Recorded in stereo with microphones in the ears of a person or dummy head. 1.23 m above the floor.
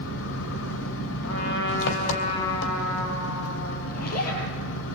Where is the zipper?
50° left (ahead or behind), 7.5 m.